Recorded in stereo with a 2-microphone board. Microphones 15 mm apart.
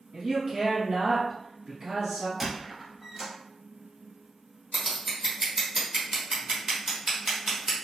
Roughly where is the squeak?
Centre.